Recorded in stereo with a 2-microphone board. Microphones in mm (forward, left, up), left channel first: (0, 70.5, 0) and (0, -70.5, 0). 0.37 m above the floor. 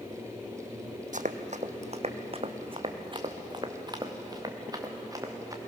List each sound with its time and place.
1.1 s running footsteps: 65° right (ahead or behind), 1.0 m; by 5.6 s 25° right (ahead or behind), 3 m